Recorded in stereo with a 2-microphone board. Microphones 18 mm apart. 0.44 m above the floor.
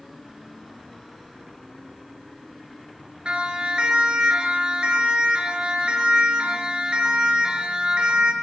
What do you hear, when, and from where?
3.2 s a siren: 70° right (ahead or behind), 5 m; by 8.3 s 75° right (ahead or behind), 5 m